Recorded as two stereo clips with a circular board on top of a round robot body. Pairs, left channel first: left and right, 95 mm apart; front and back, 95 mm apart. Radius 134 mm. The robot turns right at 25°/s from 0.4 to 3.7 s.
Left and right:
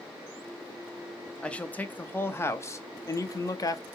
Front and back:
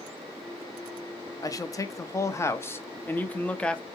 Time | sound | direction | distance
1.4 | a man speaking | 15° left | 0.7 m